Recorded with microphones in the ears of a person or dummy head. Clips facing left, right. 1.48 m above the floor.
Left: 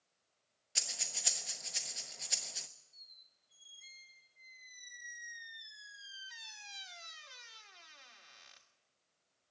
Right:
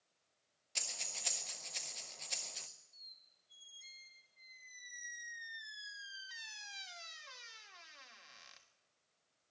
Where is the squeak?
10° right (ahead or behind), 1.4 m.